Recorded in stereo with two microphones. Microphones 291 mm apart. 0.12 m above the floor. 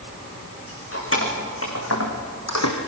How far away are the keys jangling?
About 6.5 m.